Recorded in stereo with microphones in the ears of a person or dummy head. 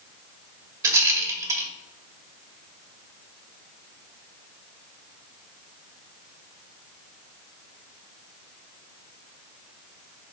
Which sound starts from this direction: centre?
A rattle, at 0.8 s.